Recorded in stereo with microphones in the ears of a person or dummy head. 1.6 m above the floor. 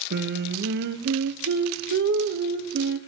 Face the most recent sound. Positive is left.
turn(degrees=-60)  # may be behind; listen again after turning